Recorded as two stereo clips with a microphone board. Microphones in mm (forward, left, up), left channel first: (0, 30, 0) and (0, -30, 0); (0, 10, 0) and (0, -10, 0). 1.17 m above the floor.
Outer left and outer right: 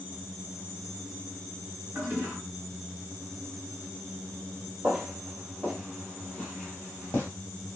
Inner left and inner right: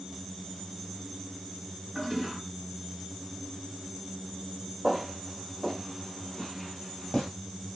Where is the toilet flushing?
30° right (ahead or behind), 1.9 m.